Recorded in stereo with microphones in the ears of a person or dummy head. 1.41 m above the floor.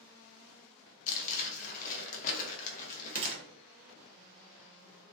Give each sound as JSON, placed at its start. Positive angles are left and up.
{"t": 1.1, "sound": "crumpling", "side_deg": 50, "distance_m": 0.6}
{"t": 3.1, "sound": "a gunshot", "side_deg": -25, "distance_m": 0.5}